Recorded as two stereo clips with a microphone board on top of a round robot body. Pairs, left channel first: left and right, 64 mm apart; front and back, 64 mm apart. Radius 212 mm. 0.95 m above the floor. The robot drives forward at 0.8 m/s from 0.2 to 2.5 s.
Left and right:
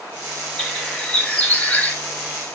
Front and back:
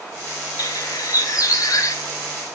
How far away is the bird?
About 3.5 m.